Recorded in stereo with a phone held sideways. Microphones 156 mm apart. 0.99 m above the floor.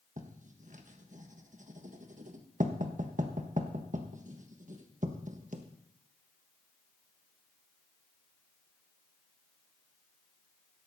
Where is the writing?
55° right (ahead or behind), 1.3 m.